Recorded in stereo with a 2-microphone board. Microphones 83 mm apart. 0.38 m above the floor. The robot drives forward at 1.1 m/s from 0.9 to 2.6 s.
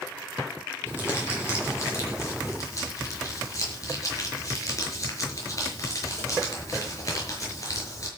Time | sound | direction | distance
0.9 | crumpling | 30° left (ahead or behind) | 7 m